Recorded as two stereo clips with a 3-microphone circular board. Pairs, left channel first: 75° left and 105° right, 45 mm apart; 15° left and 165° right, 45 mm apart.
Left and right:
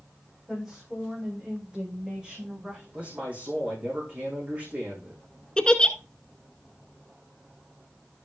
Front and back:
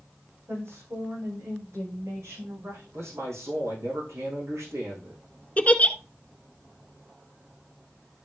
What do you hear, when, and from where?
0.5 s a woman speaking: 175° left, 8 m; by 2.8 s 170° right, 10.5 m
2.9 s a man speaking: 165° right, 7 m
5.6 s a giggle: 25° left, 0.8 m